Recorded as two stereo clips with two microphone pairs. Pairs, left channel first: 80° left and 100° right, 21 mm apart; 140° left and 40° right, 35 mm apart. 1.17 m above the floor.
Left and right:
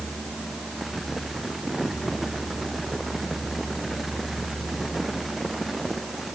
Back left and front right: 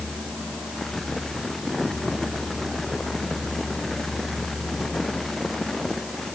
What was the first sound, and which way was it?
Only background noise.